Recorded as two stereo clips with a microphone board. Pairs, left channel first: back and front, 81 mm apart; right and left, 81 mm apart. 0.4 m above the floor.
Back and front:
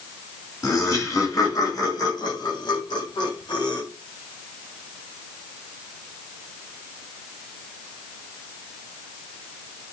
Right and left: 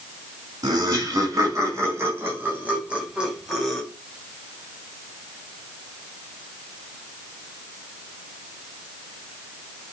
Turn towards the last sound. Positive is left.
turn(degrees=-175)